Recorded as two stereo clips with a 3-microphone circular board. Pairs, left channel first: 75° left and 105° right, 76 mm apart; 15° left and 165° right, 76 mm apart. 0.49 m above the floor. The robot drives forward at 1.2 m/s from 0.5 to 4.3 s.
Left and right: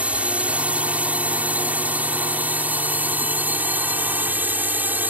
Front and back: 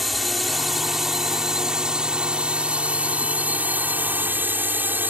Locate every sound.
0.0 s a drone: 80° right; by 5.1 s 140° right